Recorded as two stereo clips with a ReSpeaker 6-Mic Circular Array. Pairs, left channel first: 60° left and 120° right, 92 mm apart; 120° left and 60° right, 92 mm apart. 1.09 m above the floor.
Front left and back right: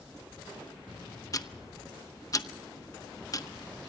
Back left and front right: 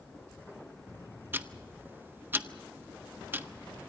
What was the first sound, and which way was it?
Ticking, 10° left.